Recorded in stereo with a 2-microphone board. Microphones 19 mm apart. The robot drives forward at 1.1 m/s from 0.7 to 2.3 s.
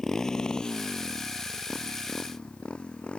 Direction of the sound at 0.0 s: 20° left (ahead or behind).